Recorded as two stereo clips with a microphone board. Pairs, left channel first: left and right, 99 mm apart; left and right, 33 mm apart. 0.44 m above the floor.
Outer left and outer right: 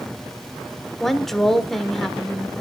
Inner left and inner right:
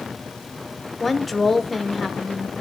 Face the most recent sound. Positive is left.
turn(degrees=5)  # may be behind; listen again after turning